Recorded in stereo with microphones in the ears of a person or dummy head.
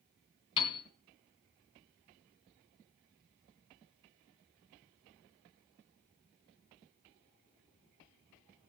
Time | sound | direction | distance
0.6 | a piano | 25° left (ahead or behind) | 3.5 m